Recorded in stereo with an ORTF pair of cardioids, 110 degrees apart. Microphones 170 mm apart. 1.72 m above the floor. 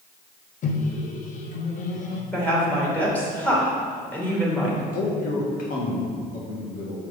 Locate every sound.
0.6 s a microwave: 50° left, 1.0 m
2.3 s a woman speaking: 10° left, 2.5 m
4.9 s a man speaking: 55° left, 1.7 m